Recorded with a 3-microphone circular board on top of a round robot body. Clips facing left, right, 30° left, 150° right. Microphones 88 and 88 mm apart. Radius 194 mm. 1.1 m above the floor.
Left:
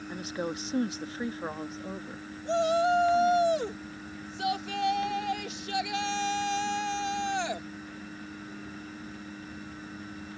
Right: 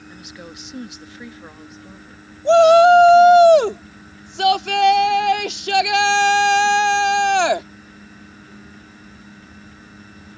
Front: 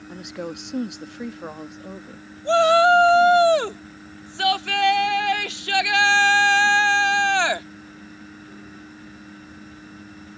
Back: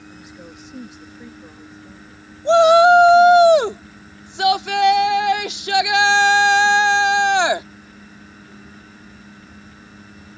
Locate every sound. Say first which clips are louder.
0.1 s a woman speaking: left 6 dB, front 12 dB; 35° left
2.5 s a shout: right 16 dB, back 5 dB; 80° right